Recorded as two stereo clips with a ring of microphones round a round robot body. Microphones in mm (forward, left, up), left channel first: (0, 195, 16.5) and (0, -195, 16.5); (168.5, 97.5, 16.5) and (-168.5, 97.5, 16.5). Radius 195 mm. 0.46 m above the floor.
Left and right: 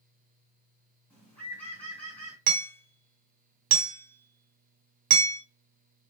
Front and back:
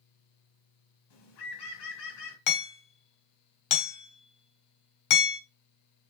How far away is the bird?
About 2 m.